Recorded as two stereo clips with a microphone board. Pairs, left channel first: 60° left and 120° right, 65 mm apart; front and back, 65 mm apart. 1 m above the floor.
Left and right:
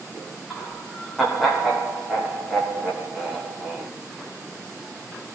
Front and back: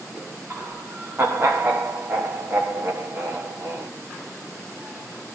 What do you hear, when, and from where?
0.5 s laughter: 150° left, 1.0 m